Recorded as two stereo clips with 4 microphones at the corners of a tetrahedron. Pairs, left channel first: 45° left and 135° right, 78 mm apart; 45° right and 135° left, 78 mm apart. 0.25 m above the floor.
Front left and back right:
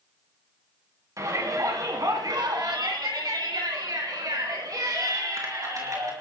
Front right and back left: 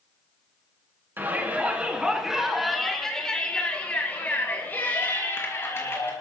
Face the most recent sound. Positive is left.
turn(degrees=-95)